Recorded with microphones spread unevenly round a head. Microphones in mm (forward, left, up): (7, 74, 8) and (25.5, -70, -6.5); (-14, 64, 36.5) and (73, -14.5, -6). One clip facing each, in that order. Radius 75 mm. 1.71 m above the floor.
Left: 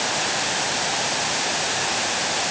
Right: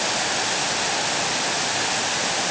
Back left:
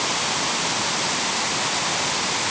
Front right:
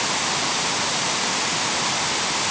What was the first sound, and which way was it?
Only background noise.